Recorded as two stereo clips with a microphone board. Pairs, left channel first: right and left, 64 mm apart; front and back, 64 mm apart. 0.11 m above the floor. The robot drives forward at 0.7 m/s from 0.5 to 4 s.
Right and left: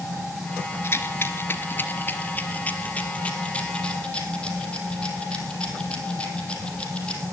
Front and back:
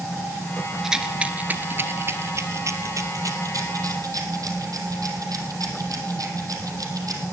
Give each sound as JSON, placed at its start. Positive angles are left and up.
{"t": 0.8, "sound": "a rattle", "azimuth_deg": -100, "distance_m": 1.1}